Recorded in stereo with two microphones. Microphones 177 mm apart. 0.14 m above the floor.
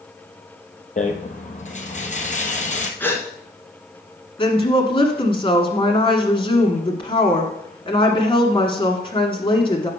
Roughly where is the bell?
No bell in this recording.